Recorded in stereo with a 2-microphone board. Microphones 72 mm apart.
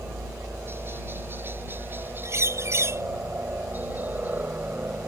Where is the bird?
40° right (ahead or behind).